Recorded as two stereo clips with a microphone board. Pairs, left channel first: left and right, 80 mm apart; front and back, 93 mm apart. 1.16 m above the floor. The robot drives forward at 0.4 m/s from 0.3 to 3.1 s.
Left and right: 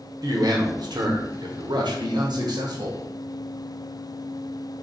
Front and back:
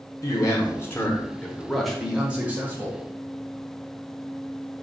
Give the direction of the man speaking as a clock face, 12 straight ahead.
2 o'clock.